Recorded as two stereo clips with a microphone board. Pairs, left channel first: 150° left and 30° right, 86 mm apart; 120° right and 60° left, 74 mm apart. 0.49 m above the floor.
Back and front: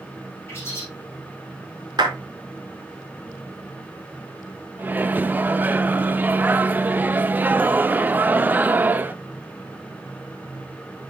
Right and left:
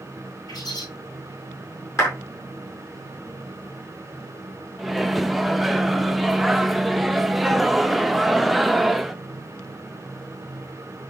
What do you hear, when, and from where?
0.5 s a bird: 150° right, 4 m
2.0 s a clap: 70° right, 4.5 m
4.8 s a microwave: 25° right, 0.5 m